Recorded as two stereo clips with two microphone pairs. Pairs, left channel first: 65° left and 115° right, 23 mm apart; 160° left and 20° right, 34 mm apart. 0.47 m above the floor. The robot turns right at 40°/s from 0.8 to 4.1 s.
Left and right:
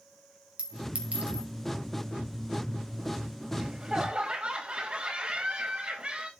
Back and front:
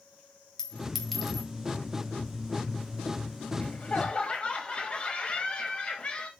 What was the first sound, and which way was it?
A clink, 130° right.